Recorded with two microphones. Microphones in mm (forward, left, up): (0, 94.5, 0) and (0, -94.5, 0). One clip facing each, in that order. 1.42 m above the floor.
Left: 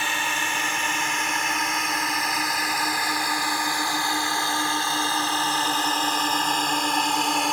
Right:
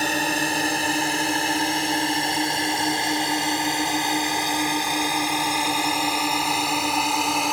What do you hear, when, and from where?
0.0 s a drone: 40° right (ahead or behind); by 7.5 s centre (ahead or behind)